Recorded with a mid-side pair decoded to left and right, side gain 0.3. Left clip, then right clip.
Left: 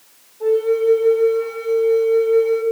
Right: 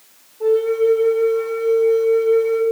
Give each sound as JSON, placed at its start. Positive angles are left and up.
{"t": 0.4, "sound": "a flute", "azimuth_deg": -25, "distance_m": 1.1}